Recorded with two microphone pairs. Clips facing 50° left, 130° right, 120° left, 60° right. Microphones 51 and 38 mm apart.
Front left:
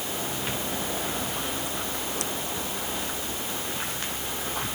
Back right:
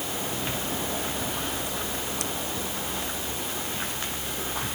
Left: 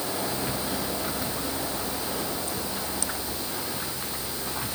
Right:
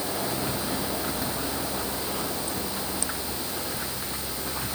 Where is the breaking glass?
No breaking glass in this recording.